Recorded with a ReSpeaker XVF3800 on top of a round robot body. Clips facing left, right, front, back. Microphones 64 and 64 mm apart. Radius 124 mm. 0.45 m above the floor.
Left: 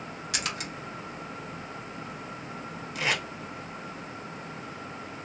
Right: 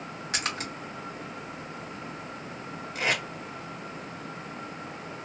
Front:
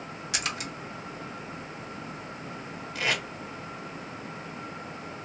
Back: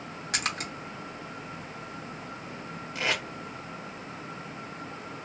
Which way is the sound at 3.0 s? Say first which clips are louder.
Right 1 dB, front 1 dB; 120° right.